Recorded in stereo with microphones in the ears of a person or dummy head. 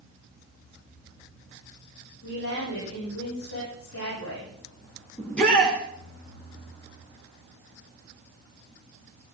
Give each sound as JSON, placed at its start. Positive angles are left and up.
{"t": 2.2, "sound": "a woman speaking", "side_deg": 85, "distance_m": 9.5}
{"t": 5.2, "sound": "a shout", "side_deg": 10, "distance_m": 2.5}